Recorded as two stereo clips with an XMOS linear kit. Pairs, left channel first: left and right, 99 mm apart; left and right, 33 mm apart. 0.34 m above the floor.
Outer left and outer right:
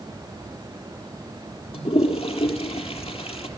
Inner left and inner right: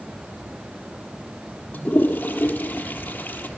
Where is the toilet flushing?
85° left, 3.5 m.